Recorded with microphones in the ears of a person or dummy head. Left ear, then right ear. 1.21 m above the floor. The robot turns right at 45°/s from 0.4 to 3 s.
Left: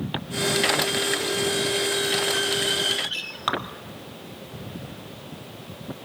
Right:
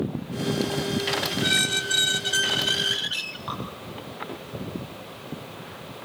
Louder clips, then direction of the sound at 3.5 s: Left 8 dB; 45° left (ahead or behind).